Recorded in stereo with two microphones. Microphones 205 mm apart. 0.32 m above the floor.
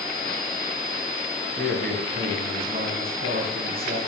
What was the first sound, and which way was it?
A man speaking, 50° right (ahead or behind).